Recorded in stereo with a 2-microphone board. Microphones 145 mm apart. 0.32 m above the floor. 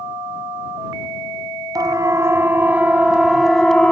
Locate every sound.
1.8 s a siren: 25° right (ahead or behind); by 3.9 s 5° left (ahead or behind)